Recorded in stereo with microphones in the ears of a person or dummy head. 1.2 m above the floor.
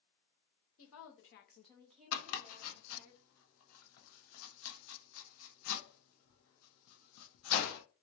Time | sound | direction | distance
0.8 | a woman speaking | 70° left (ahead or behind) | 1.0 m
2.1 | chopping | 70° left (ahead or behind) | 0.6 m